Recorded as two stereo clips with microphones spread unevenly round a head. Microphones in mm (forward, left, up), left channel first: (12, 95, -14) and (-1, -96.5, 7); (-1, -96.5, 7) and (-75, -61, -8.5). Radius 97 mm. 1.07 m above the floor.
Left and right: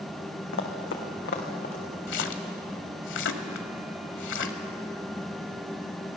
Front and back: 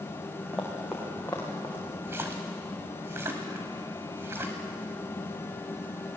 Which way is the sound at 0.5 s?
70° left.